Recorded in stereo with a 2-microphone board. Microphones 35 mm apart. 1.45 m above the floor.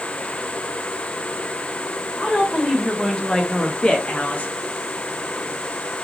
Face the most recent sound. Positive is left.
turn(degrees=50)  # may be behind; listen again after turning